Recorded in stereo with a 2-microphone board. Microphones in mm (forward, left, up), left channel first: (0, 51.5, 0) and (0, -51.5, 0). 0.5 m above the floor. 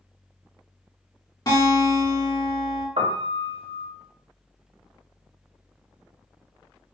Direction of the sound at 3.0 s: 85° right.